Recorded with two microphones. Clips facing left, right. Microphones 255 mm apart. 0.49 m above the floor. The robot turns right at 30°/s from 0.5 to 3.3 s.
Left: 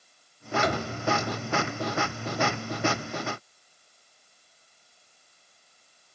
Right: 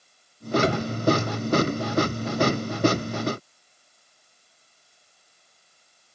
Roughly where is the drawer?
Right.